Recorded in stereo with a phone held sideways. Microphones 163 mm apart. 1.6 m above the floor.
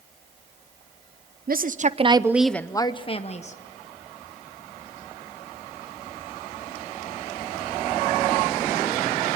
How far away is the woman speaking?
About 0.9 m.